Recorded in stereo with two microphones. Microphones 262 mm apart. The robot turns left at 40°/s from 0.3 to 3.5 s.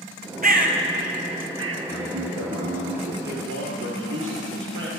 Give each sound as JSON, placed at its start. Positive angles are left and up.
{"t": 0.4, "sound": "a bird", "side_deg": -35, "distance_m": 1.0}
{"t": 1.9, "sound": "a man speaking", "azimuth_deg": -80, "distance_m": 1.9}
{"t": 3.2, "sound": "a man speaking", "side_deg": -40, "distance_m": 3.5}